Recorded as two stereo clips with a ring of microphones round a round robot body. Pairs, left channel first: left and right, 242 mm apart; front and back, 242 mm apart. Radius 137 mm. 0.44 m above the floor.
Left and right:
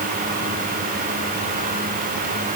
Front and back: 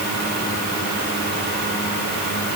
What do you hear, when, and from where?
Only background noise.